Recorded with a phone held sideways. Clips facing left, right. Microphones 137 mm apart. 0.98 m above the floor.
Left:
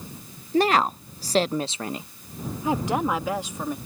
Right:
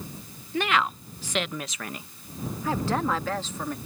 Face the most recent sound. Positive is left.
turn(degrees=10)  # may be behind; listen again after turning